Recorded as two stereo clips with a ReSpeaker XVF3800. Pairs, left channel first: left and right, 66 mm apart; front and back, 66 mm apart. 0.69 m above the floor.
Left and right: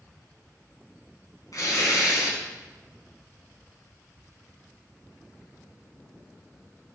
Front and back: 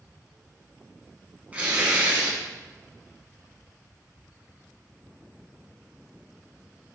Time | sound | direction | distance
1.5 | tearing paper | 115° left | 6 m